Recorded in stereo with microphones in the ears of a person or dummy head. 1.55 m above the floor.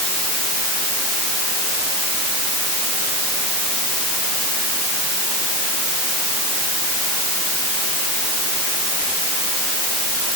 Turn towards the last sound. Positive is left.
No sound to turn to.